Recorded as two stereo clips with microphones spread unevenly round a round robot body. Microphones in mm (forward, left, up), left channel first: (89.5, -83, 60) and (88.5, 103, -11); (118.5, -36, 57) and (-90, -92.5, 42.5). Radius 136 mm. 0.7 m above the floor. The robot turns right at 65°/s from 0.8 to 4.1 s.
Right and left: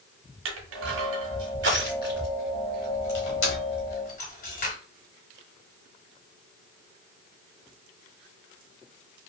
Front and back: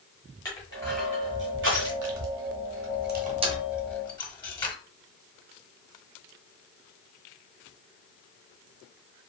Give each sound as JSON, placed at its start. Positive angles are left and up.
{"t": 0.5, "sound": "crushing", "azimuth_deg": 90, "distance_m": 0.9}